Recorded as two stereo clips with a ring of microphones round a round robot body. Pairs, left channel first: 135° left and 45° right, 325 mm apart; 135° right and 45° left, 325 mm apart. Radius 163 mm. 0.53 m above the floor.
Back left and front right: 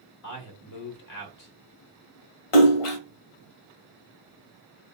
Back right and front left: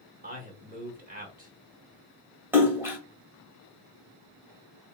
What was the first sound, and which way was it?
A man speaking, 105° left.